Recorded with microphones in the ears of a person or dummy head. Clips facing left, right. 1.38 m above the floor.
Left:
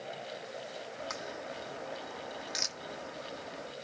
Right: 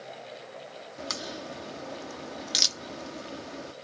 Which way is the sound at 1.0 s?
60° right (ahead or behind).